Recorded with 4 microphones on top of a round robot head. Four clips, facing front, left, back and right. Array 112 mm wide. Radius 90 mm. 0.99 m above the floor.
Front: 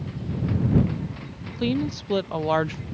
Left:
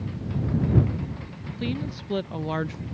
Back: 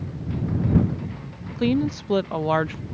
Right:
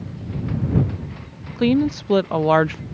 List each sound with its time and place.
1.6 s a woman speaking: 100° right; by 2.8 s 75° right